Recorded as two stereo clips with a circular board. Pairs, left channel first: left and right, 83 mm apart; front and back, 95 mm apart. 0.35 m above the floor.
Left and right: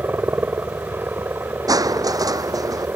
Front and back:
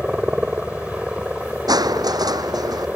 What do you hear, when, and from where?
0.0 s a helicopter: 115° right
1.7 s crushing: 135° right